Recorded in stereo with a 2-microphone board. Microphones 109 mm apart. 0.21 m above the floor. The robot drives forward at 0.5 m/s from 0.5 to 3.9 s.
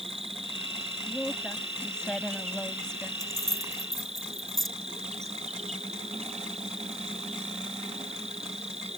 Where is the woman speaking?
5° left (ahead or behind).